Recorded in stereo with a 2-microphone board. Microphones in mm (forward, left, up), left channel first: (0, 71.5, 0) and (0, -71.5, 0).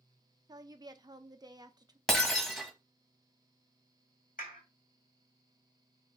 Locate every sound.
0.5 s a woman speaking: 25° right (ahead or behind), 0.6 m
2.1 s breaking glass: centre (ahead or behind), 1.0 m
4.4 s a clap: 70° left (ahead or behind), 2 m